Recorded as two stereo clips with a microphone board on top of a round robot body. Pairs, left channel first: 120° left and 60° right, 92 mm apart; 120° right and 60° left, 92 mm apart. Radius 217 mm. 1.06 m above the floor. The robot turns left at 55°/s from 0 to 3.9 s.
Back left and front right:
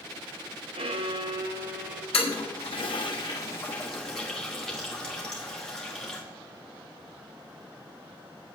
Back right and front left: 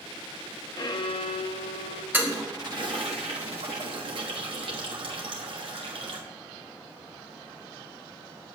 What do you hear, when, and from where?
0.8 s a violin: 75° right, 0.8 m; by 2.0 s 145° right, 0.8 m
2.1 s a toilet flushing: 135° left, 1.2 m; by 6.2 s 35° left, 1.2 m